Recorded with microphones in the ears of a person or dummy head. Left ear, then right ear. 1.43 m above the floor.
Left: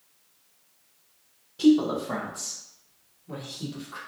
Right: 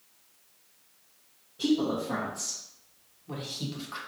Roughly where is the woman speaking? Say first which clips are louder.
Left 6 dB; left.